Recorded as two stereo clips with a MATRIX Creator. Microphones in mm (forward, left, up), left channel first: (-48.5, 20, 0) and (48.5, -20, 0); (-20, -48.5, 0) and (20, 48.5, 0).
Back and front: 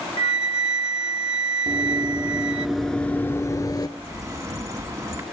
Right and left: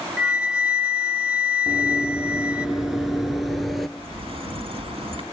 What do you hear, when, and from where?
0.2 s a flute: 145° left, 0.7 m
1.7 s running footsteps: 10° right, 0.9 m; by 3.9 s 160° left, 0.9 m
4.0 s a bird: 35° left, 3 m